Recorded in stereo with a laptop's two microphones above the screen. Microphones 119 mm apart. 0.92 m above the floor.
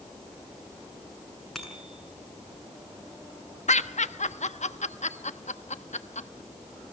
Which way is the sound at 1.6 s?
Centre (ahead or behind).